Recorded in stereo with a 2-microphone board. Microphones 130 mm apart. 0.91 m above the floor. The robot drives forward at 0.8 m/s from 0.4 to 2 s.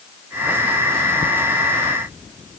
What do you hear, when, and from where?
Only background noise.